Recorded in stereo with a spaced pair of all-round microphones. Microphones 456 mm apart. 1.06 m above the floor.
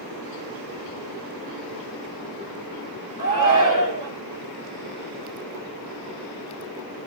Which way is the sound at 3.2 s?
40° left (ahead or behind).